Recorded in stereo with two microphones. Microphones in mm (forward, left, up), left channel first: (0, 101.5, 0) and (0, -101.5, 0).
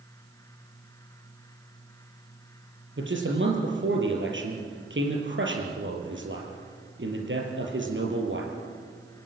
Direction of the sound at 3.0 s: 70° right (ahead or behind).